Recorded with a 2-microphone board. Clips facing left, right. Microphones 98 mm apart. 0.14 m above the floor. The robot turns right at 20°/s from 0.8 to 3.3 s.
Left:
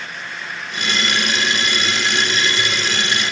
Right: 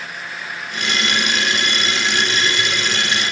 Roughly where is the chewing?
No chewing in this recording.